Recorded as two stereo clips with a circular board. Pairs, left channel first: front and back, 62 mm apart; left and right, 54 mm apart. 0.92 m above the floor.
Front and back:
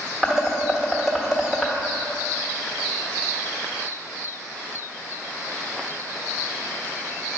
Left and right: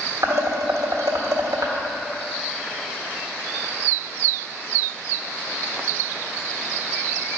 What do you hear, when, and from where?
0.2 s dishes clattering: 95° right, 1.5 m